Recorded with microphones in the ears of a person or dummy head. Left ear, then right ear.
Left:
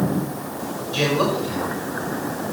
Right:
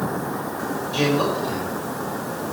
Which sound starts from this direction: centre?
A man speaking, at 0.9 s.